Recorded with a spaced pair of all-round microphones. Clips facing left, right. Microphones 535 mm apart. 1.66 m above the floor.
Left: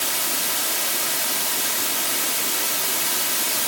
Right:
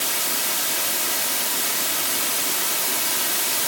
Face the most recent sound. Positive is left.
No sound to turn to.